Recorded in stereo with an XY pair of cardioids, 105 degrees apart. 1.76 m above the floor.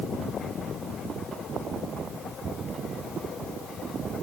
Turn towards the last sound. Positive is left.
No sound to turn to.